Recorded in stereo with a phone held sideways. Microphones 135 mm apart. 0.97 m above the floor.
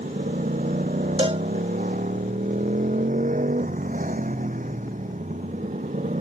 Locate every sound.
0.0 s a motorcycle: 85° right; by 6.2 s 75° right (ahead or behind)
1.2 s a cowbell: 45° right (ahead or behind)